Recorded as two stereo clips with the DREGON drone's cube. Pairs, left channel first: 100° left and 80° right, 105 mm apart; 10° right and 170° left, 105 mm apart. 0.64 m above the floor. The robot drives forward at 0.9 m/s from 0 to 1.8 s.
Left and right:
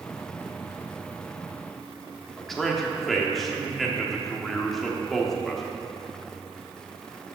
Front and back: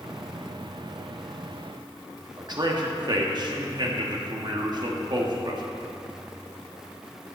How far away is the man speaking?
About 1.1 m.